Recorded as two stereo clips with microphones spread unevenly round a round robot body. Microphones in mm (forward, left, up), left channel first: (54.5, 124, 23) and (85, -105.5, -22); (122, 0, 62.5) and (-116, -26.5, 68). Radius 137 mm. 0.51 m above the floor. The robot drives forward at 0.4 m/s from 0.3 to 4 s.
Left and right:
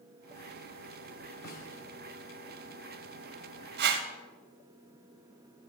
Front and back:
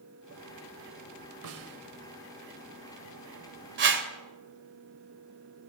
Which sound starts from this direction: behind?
A snare drum, at 1.4 s.